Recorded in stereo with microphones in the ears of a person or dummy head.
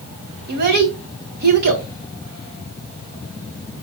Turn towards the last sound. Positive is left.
turn(degrees=-50)  # may be behind; listen again after turning